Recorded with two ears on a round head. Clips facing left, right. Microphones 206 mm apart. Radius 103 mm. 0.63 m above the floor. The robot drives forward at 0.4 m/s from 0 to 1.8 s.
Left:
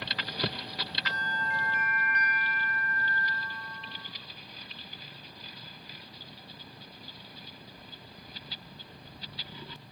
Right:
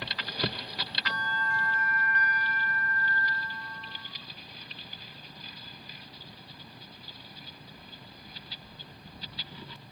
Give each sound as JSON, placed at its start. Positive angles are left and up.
{"t": 1.1, "sound": "a bell", "side_deg": 20, "distance_m": 0.9}